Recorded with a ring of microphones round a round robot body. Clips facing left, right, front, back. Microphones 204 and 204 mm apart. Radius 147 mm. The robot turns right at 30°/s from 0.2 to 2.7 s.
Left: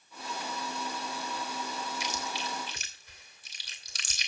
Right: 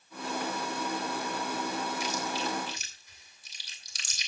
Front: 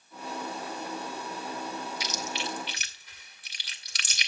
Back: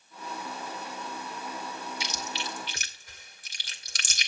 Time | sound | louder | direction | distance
2.0 | chewing | right 5 dB, front 2 dB | 115° left | 2 m